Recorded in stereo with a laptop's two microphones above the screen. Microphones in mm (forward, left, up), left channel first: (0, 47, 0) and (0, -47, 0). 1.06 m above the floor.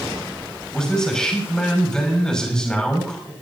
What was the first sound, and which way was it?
A man speaking, 5° left (ahead or behind).